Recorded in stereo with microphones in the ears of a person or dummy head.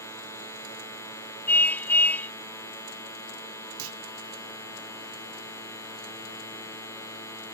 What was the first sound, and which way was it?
A machine running, 20° left (ahead or behind).